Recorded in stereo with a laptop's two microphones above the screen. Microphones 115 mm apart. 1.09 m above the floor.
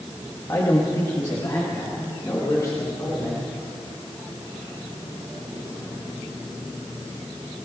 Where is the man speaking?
30° left (ahead or behind), 1.1 m; by 3.5 s 35° left (ahead or behind), 3.5 m.